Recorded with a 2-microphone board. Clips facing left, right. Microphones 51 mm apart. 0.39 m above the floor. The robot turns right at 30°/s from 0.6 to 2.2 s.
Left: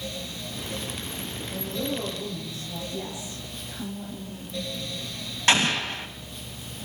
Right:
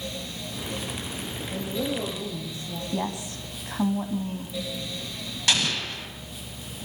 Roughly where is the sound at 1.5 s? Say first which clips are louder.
Right 2 dB; right.